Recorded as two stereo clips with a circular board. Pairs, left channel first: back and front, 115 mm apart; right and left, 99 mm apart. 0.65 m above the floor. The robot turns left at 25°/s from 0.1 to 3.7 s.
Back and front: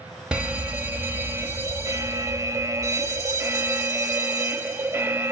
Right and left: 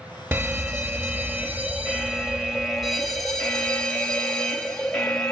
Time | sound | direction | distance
0.3 | a fire alarm | 75° left | 1.7 m